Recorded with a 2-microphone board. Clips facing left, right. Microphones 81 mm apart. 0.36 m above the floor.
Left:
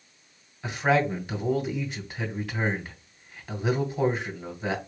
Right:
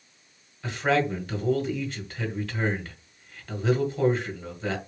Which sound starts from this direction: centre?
A man speaking, at 0.6 s.